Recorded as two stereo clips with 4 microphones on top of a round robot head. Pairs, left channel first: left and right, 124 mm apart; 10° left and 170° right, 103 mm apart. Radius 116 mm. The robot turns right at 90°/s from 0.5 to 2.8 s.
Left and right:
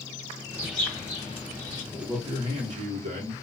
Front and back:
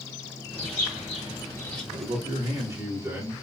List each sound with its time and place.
0.5 s a bird: 20° right, 1.1 m; by 1.8 s 95° left, 1.1 m
1.9 s a man speaking: 175° right, 1.0 m; by 3.3 s 100° right, 1.0 m